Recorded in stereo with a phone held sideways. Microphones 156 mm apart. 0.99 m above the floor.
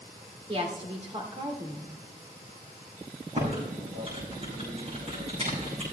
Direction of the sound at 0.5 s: 40° right (ahead or behind).